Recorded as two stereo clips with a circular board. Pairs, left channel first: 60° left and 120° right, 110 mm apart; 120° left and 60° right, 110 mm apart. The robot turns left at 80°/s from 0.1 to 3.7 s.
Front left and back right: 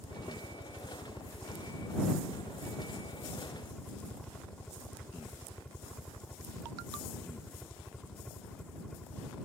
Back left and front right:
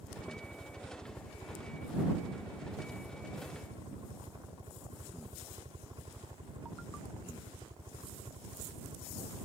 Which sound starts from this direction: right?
A helicopter, at 0.0 s.